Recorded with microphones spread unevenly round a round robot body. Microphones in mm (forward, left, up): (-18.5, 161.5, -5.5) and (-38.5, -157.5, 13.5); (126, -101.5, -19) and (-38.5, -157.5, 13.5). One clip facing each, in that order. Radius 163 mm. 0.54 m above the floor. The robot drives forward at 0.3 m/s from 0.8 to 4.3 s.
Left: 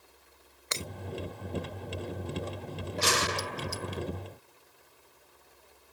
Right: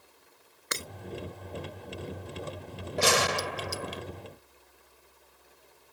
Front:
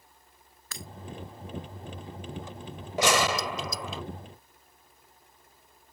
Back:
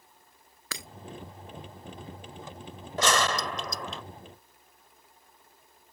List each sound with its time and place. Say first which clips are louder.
0.7 s breaking glass: even, back 2 dB; 165° right
3.0 s a gunshot: right 5 dB, front 2 dB; 60° right; by 4.0 s 65° right